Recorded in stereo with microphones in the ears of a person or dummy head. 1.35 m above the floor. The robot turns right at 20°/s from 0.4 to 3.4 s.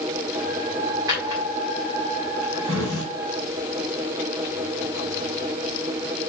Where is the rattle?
I don't hear a rattle.